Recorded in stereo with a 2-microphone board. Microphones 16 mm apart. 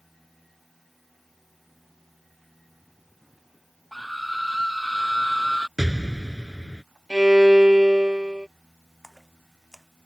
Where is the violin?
45° right (ahead or behind).